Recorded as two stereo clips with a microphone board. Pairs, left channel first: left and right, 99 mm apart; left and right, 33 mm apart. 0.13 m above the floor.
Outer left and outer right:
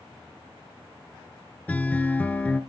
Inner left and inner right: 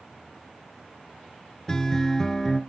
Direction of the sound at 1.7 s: 15° left (ahead or behind).